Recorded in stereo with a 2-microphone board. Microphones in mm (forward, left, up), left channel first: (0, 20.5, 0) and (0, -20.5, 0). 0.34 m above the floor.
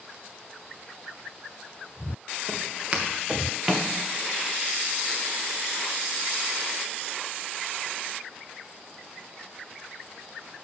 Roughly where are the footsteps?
Right.